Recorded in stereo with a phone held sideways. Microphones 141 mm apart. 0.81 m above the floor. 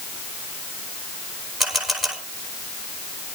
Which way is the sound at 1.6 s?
Centre (ahead or behind).